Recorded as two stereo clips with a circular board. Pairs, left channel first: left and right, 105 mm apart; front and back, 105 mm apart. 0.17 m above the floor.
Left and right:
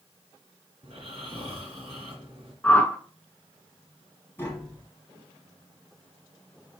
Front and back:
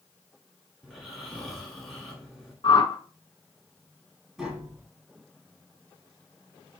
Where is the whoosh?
20° left, 0.6 m.